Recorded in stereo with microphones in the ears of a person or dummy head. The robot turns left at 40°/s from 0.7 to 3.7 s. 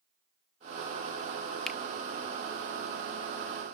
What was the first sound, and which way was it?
A finger snap, centre (ahead or behind).